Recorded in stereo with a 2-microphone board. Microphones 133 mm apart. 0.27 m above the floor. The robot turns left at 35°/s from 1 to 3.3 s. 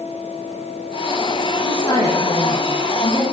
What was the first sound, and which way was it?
A woman speaking, 130° left.